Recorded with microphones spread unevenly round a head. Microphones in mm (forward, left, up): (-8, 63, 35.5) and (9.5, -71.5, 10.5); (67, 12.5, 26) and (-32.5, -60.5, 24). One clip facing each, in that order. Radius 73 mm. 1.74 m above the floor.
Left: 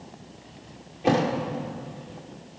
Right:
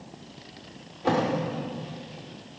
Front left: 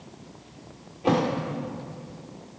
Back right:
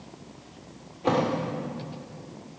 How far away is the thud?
About 1.5 m.